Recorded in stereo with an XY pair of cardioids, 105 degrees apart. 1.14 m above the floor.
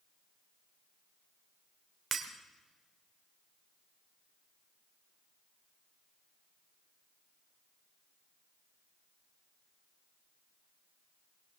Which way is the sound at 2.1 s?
40° right.